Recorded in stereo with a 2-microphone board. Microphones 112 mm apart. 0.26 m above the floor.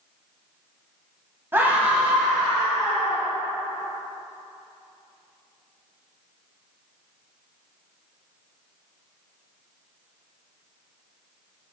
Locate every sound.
1.5 s a scream: 20° right (ahead or behind), 1.5 m; by 3.3 s 5° left (ahead or behind), 3 m